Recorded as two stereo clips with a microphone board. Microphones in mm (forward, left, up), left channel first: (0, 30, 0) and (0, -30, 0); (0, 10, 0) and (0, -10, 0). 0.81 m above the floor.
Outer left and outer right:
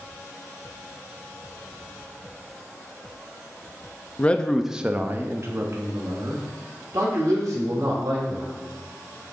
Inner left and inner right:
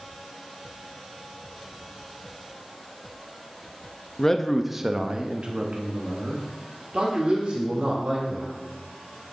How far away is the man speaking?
About 0.6 m.